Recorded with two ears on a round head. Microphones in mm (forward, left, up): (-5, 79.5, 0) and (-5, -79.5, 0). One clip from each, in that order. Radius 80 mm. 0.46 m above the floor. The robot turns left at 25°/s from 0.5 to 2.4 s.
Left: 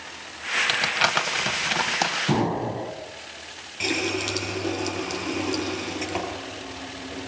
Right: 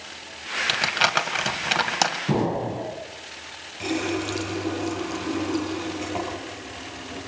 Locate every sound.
0.7 s crumpling: centre (ahead or behind), 2 m; by 2.2 s 35° right (ahead or behind), 2 m
2.3 s an explosion: 20° left (ahead or behind), 3.5 m; by 2.9 s 25° left (ahead or behind), 3.5 m
3.8 s a running tap: 80° left, 7.5 m